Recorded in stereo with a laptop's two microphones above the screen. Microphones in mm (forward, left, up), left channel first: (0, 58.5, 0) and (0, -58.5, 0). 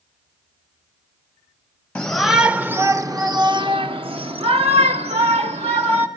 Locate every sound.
1.9 s a shout: 10° left (ahead or behind), 0.8 m; by 6.1 s 70° right (ahead or behind), 2 m